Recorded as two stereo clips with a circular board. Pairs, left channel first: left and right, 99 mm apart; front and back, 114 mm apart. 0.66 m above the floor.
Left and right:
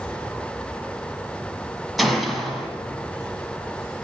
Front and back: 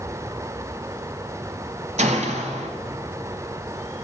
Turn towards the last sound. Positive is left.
turn(degrees=180)